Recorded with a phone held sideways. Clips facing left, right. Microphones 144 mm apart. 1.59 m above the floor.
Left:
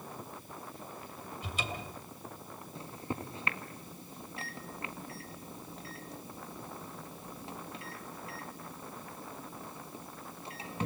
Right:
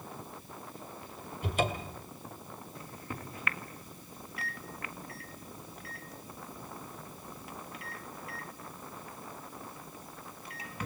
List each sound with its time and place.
1.4 s a cupboard door: 55° right (ahead or behind), 2.5 m
2.8 s a microwave: 25° left (ahead or behind), 1.6 m